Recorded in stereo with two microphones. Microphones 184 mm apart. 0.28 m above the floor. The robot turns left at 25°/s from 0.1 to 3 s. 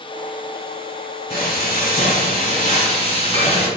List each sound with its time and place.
1.3 s frying: 90° left, 1.3 m; by 3.7 s 50° left, 1.3 m